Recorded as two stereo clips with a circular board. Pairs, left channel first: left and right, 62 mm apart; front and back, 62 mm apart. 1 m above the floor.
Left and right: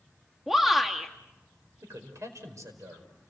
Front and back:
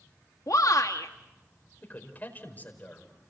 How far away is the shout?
About 2.0 m.